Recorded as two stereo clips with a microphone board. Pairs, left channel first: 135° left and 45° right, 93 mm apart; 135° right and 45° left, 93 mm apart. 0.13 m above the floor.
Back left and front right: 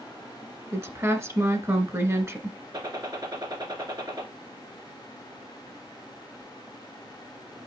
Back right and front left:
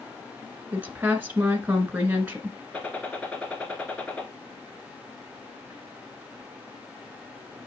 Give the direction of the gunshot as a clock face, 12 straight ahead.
2 o'clock.